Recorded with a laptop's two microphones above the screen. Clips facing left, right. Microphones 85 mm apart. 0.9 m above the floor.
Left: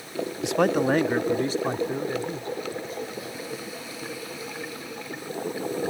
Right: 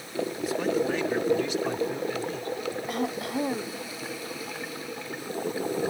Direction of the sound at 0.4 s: 75° left (ahead or behind).